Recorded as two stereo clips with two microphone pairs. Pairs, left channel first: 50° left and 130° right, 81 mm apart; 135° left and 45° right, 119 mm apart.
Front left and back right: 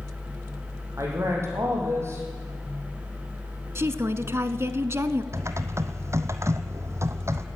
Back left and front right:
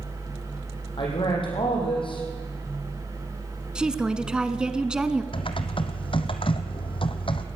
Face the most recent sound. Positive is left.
turn(degrees=175)